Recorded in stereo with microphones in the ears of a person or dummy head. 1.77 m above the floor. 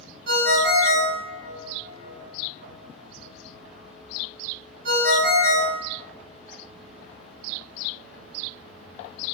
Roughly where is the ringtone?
Right.